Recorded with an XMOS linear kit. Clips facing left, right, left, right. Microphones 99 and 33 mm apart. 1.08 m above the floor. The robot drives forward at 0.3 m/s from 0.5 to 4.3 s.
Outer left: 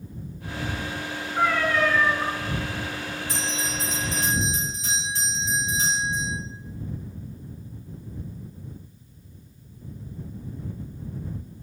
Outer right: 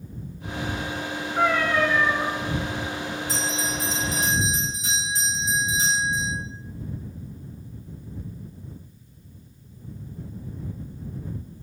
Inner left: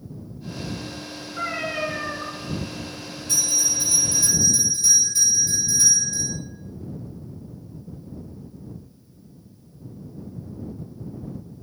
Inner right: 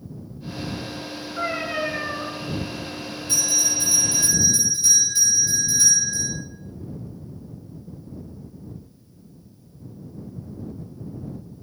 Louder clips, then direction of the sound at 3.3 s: Outer right 1 dB, even; 30° right (ahead or behind).